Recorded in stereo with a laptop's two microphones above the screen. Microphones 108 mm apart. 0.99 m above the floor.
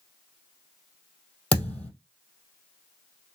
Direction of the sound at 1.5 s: 10° left (ahead or behind).